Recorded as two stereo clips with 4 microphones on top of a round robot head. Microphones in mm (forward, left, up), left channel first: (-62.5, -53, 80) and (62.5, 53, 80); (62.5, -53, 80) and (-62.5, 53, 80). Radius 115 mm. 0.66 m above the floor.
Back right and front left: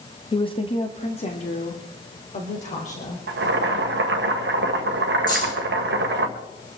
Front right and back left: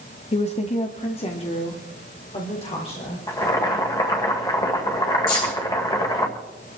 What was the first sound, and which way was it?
A woman speaking, 80° right.